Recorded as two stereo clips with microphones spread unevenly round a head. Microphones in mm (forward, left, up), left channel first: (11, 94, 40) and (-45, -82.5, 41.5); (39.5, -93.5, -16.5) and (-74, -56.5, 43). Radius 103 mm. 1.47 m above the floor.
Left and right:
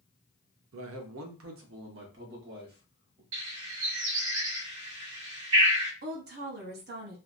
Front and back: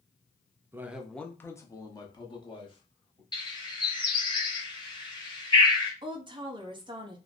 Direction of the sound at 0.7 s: 125° right.